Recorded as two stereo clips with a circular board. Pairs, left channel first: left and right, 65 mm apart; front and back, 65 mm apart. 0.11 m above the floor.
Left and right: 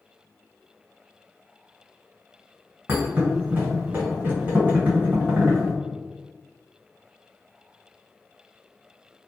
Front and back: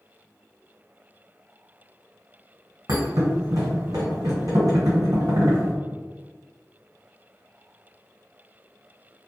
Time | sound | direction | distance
2.9 | a thud | 160° right | 1.7 m